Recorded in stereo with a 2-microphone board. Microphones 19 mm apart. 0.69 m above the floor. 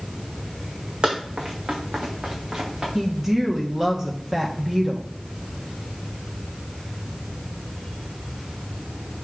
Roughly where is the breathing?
No breathing in this recording.